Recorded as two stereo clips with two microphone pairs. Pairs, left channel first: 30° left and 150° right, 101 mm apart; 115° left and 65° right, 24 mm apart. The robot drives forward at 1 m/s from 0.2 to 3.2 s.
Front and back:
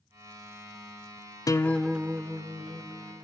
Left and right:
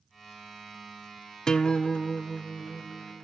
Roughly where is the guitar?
Ahead left.